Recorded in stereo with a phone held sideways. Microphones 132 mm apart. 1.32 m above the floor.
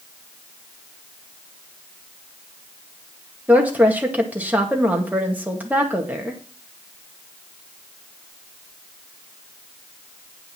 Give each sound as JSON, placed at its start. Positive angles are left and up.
{"t": 3.5, "sound": "a woman speaking", "side_deg": -15, "distance_m": 2.0}